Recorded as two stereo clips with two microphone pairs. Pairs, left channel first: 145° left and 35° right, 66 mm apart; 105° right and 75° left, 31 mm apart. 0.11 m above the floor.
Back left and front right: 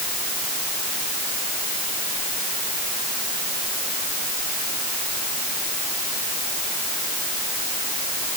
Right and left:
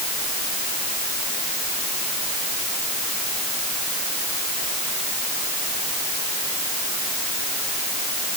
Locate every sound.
Only background noise.